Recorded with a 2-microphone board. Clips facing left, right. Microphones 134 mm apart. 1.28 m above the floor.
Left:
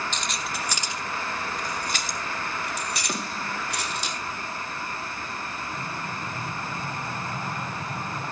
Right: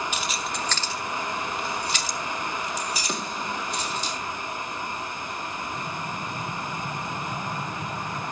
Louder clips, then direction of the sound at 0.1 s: Right 2 dB; 10° right (ahead or behind).